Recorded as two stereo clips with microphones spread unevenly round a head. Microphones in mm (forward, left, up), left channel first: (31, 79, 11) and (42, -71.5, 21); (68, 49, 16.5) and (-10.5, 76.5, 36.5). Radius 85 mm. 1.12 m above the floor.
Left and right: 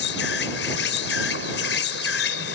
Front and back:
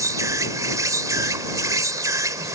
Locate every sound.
0.0 s an insect: 110° left